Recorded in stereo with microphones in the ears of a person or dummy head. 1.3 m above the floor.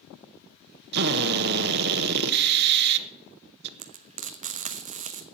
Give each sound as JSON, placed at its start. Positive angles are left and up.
{"t": 0.9, "sound": "a drill", "side_deg": -55, "distance_m": 1.1}
{"t": 3.8, "sound": "frying", "side_deg": -40, "distance_m": 1.0}